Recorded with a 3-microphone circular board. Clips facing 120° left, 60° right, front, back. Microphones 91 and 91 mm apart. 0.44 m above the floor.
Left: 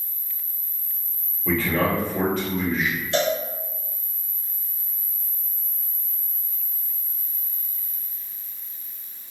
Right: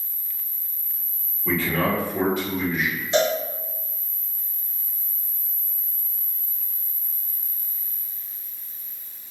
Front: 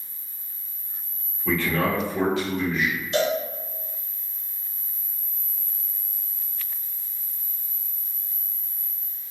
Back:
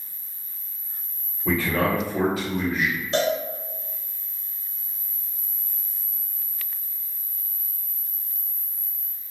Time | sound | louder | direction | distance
1.4 | a man speaking | left 1 dB, back 1 dB | 125° right | 1.4 m
3.1 | a cowbell | right 2 dB, even | 125° right | 0.7 m